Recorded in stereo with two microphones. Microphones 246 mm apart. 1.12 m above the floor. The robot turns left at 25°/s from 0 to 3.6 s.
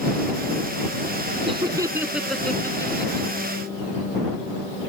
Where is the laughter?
20° right (ahead or behind); by 3.3 s 25° left (ahead or behind).